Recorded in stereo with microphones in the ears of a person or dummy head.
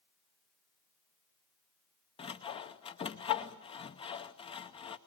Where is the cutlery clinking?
No cutlery clinking in this recording.